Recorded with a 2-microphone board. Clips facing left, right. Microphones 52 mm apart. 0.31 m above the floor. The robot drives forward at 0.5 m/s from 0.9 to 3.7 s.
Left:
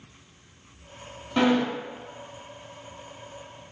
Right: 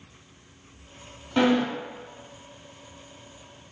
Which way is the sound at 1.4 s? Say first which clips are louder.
Even; 5° right (ahead or behind).